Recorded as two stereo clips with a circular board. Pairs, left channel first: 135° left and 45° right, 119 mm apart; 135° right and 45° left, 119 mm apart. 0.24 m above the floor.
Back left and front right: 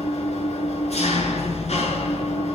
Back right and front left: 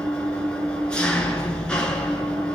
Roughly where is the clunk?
No clunk in this recording.